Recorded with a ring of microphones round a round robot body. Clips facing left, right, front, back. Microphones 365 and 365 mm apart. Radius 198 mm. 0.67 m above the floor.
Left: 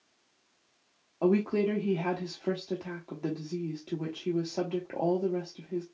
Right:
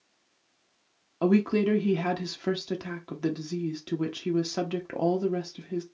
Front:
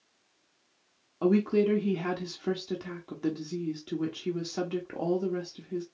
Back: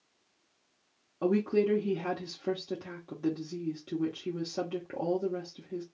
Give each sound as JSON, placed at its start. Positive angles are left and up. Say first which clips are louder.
{"t": 1.2, "sound": "a woman speaking", "louder": "right 3 dB, front 3 dB", "azimuth_deg": -70, "distance_m": 0.7}